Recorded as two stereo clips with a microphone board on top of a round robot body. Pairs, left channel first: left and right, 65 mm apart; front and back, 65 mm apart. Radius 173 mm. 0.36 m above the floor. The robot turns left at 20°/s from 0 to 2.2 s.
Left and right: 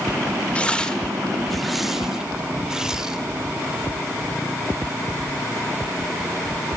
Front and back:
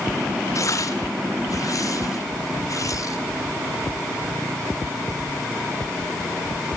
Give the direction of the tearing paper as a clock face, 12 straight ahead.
11 o'clock.